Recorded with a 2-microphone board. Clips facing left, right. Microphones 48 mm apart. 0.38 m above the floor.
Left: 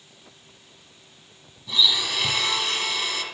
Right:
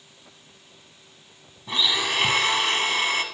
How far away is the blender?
About 1.2 m.